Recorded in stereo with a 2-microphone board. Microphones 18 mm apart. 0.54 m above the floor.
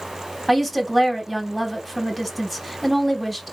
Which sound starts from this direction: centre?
A woman speaking, at 0.5 s.